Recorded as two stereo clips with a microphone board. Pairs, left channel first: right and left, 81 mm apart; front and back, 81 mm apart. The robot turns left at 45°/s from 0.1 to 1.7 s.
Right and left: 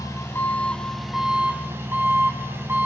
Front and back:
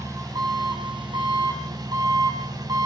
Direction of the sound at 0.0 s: 140° right.